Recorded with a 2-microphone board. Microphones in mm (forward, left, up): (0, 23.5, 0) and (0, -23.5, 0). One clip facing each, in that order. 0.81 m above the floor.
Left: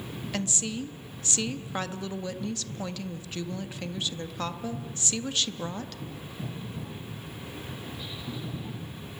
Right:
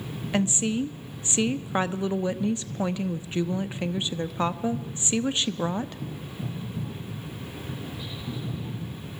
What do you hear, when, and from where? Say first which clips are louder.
0.3 s a woman speaking: right 8 dB; 25° right (ahead or behind), 0.7 m